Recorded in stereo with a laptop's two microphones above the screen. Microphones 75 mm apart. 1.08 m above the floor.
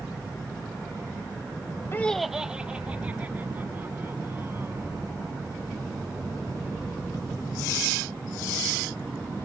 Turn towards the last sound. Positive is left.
turn(degrees=-35)  # may be behind; listen again after turning